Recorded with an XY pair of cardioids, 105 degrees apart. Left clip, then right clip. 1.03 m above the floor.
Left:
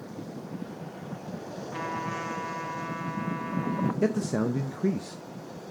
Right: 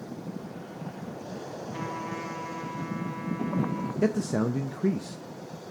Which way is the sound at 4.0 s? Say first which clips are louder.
Right 2 dB; straight ahead.